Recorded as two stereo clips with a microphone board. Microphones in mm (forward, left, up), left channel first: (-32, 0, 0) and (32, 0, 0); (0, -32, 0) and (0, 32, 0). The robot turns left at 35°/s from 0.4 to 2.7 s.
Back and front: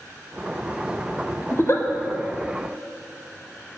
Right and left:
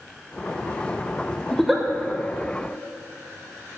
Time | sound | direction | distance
1.5 | a giggle | 175° right | 0.8 m